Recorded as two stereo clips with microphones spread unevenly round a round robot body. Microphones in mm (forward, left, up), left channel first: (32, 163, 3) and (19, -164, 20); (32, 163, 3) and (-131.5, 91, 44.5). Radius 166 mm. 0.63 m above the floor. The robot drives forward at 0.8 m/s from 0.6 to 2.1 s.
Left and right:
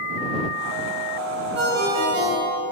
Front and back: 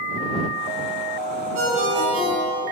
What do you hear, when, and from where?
1.6 s a ringtone: 155° right, 1.9 m; by 2.6 s 160° right, 2.5 m